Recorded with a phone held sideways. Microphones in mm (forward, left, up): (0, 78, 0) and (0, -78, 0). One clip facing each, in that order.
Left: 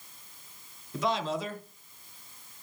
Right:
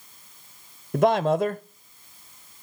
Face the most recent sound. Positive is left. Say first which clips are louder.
# right 10 dB
turn(degrees=-55)  # may be behind; listen again after turning